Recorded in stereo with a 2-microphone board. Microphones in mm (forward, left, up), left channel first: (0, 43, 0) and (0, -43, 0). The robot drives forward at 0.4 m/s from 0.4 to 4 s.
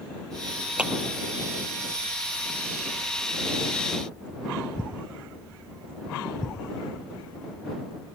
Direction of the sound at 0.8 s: 10° right (ahead or behind).